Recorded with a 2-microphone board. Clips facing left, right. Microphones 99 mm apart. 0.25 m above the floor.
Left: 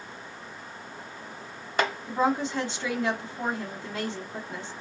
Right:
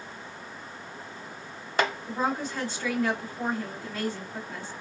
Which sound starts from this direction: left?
A woman speaking, at 2.1 s.